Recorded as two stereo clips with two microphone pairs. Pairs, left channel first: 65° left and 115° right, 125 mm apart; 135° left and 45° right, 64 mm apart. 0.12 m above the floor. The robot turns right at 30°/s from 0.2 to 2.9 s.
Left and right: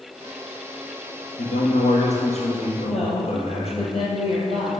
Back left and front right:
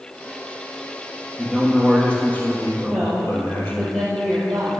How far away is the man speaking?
About 2.5 m.